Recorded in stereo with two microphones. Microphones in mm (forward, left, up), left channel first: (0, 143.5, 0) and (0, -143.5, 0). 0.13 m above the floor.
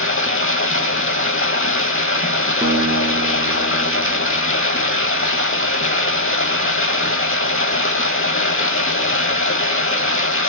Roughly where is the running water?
Left.